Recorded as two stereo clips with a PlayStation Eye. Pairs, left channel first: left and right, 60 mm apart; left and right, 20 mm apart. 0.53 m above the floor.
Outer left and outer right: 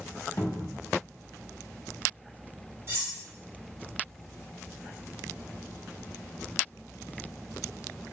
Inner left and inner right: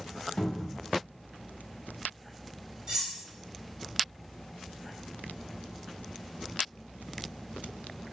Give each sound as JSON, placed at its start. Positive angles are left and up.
{"t": 0.4, "sound": "a cupboard door", "side_deg": 55, "distance_m": 0.9}
{"t": 2.9, "sound": "cutlery clinking", "side_deg": -45, "distance_m": 1.5}